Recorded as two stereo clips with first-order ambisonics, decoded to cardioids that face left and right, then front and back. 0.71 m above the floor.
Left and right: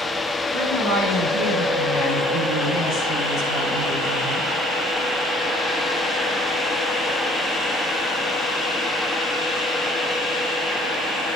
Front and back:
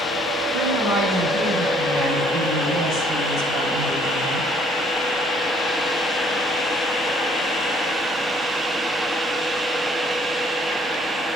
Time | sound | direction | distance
0.5 | a woman speaking | 120° left | 6 m